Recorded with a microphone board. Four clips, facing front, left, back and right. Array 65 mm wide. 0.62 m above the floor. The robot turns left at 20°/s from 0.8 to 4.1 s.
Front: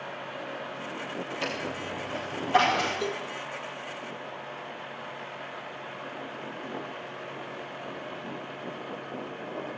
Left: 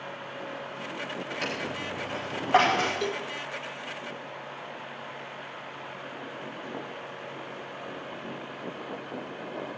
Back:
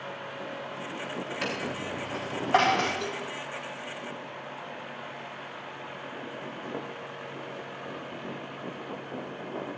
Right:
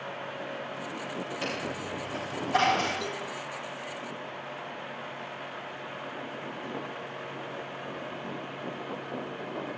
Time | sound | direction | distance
1.4 | a dropped coin | 155° left | 6 m
3.0 | a cowbell | 70° left | 1.5 m